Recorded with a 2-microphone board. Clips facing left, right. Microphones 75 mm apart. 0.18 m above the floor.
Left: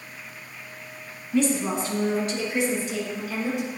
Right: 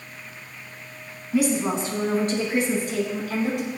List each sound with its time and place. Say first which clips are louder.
1.3 s a woman speaking: right 1 dB; 10° right (ahead or behind), 1.5 m; by 3.7 s 65° right (ahead or behind), 3 m